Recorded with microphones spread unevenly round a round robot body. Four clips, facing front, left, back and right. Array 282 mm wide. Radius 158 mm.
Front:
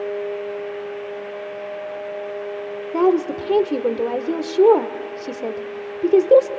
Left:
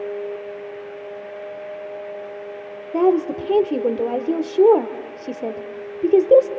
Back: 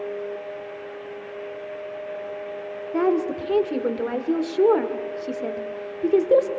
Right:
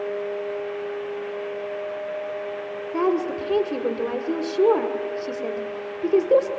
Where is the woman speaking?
40° left, 1.5 m.